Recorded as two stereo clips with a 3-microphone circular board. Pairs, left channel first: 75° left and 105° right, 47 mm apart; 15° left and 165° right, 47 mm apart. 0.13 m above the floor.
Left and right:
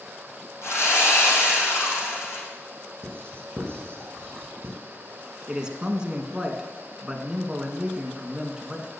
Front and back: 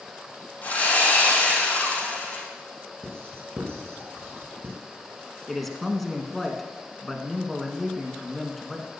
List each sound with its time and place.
0.6 s sawing: 70° left, 5 m
3.0 s writing: 140° right, 5 m
5.5 s a man speaking: 70° right, 1.1 m